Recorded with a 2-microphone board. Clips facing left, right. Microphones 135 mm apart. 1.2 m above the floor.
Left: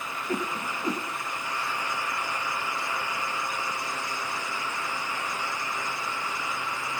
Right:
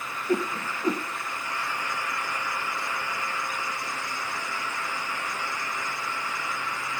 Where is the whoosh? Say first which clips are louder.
Right 4 dB; 10° right (ahead or behind), 0.7 m.